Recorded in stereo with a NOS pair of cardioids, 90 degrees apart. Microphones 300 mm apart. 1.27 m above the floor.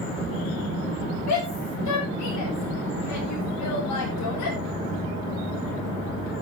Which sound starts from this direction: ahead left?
A shout, at 1.3 s.